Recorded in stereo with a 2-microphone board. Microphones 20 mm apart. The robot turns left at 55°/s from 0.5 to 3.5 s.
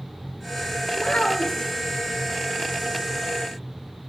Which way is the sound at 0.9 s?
85° left.